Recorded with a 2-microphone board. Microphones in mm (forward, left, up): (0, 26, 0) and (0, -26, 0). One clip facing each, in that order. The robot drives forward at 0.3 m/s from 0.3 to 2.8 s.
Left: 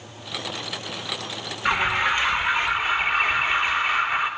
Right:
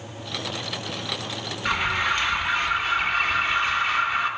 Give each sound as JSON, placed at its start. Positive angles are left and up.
{"t": 1.6, "sound": "an alarm", "side_deg": 15, "distance_m": 2.5}